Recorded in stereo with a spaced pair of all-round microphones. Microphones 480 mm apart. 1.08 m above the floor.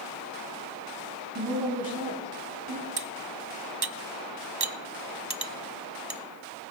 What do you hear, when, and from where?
1.4 s a woman speaking: 40° right (ahead or behind), 3 m
3.0 s cutlery clinking: 50° right (ahead or behind), 0.7 m